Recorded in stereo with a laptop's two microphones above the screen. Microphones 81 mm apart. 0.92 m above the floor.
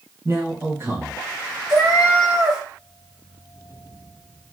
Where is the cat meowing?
10° right (ahead or behind), 1.6 m.